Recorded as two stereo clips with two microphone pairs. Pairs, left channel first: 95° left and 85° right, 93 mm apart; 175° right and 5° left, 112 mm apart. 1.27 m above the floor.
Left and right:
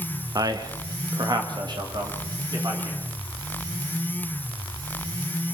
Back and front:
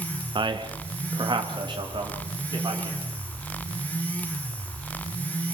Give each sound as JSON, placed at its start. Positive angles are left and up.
{"t": 0.3, "sound": "a man speaking", "azimuth_deg": -40, "distance_m": 1.3}